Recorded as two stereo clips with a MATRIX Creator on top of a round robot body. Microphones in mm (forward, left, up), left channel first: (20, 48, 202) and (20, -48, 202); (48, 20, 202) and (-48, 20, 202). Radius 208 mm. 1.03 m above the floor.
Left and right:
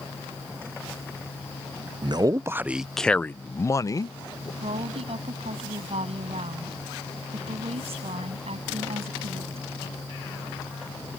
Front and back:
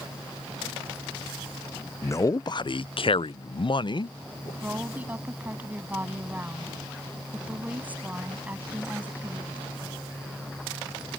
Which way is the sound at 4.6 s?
105° right.